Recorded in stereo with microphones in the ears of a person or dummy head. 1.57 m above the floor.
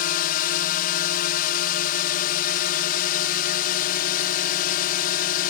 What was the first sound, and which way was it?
A drone, 50° left (ahead or behind).